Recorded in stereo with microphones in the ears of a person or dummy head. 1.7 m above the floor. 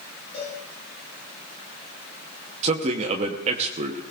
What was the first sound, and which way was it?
A cowbell, 35° left (ahead or behind).